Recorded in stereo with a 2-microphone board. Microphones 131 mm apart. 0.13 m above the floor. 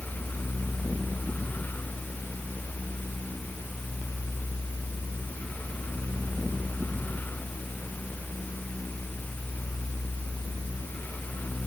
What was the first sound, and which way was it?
Only background noise.